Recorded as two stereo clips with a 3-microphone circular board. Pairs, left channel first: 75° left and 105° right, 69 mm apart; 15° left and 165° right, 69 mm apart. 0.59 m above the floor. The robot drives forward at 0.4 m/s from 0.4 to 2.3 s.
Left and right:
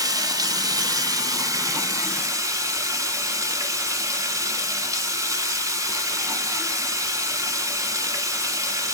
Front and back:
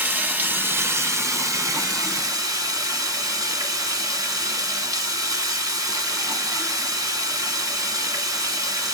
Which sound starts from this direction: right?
Running water, at 0.0 s.